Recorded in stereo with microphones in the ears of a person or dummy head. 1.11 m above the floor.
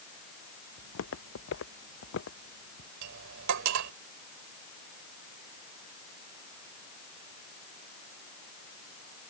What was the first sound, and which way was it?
Footsteps, 75° left (ahead or behind).